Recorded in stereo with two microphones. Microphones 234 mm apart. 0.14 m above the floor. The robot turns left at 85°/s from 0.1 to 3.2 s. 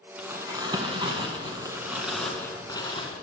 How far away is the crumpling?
About 1.8 m.